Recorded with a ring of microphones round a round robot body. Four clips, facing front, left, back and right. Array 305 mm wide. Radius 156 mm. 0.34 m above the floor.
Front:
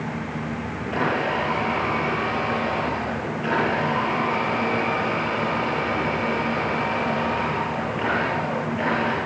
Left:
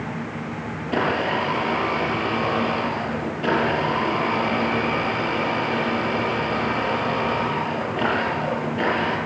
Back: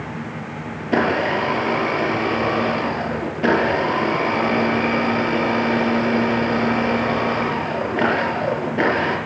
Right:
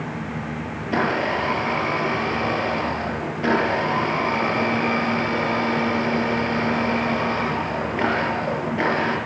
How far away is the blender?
About 6 m.